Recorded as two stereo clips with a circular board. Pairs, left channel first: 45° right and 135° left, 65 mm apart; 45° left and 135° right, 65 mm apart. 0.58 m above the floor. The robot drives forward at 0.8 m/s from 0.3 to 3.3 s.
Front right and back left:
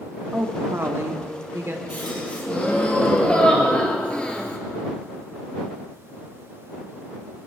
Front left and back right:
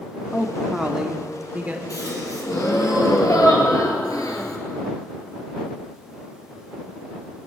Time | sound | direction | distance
0.3 | a woman speaking | 120° left | 0.9 m
1.9 | a gasp | 20° left | 3.5 m